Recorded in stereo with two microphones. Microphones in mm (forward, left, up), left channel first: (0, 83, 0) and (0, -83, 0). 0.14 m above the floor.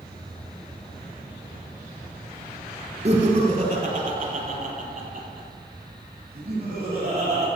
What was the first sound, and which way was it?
Laughter, 45° right (ahead or behind).